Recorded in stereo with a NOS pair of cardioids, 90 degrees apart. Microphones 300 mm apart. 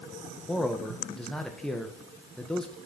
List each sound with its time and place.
0.5 s a man speaking: straight ahead, 1.3 m